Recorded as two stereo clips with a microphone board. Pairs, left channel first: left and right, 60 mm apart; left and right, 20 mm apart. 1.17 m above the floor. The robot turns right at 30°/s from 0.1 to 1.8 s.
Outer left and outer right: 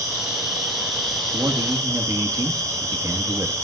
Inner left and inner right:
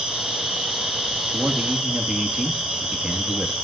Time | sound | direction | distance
0.0 | an insect | 110° right | 6 m
1.3 | a man speaking | 80° right | 1.8 m